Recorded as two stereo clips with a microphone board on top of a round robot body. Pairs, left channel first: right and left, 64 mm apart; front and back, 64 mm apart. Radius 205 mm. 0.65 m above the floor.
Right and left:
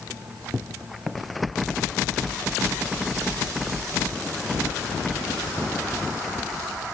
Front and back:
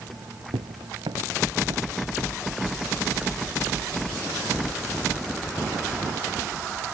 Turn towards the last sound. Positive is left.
turn(degrees=-140)